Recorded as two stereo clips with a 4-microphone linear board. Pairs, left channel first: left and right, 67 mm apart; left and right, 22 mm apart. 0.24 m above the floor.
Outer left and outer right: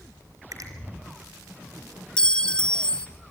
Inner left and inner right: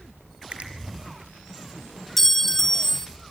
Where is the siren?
No siren in this recording.